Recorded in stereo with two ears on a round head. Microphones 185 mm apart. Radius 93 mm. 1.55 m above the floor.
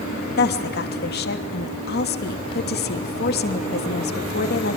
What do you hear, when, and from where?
0.4 s a woman speaking: 50° left (ahead or behind), 2.5 m